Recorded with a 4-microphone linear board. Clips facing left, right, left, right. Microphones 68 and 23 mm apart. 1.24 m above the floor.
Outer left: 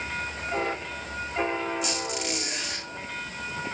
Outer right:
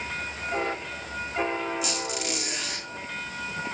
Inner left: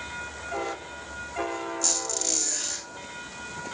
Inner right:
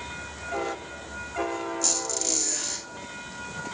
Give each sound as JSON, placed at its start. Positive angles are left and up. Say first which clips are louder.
{"t": 1.8, "sound": "a squeak", "louder": "even, inner left 1 dB", "side_deg": -5, "distance_m": 7.5}